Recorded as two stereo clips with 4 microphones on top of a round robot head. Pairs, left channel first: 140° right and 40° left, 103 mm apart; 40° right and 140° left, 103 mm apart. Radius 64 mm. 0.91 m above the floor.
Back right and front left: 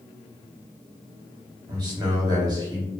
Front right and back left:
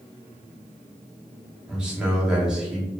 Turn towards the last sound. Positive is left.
turn(degrees=60)